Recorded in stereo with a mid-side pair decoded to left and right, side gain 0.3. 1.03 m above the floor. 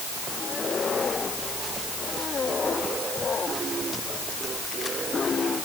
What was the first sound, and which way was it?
Only background noise.